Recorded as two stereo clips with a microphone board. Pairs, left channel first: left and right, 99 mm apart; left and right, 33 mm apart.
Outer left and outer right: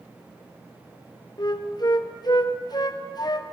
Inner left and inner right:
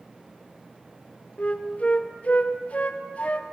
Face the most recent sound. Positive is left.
turn(degrees=45)  # may be behind; listen again after turning